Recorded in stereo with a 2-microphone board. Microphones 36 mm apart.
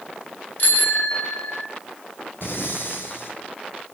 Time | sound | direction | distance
0.6 | a bicycle bell | 55° left (ahead or behind) | 3 m
2.4 | breathing | 70° left (ahead or behind) | 6.5 m